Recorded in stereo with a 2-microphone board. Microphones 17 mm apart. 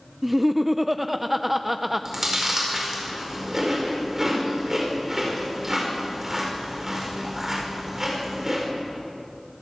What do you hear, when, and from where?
0.2 s laughter: 5° right (ahead or behind), 0.5 m
2.0 s chewing: 30° right (ahead or behind), 5 m